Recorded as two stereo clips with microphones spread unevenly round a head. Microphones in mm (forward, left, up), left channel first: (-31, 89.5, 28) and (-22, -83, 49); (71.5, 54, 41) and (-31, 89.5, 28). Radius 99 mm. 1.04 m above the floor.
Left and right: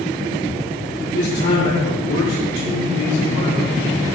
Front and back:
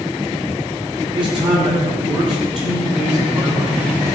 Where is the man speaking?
125° left, 8 m; by 3.8 s 115° left, 8.5 m.